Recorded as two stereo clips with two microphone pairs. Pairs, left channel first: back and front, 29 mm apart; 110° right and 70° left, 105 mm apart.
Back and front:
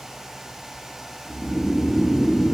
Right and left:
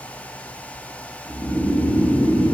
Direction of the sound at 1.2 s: 140° left.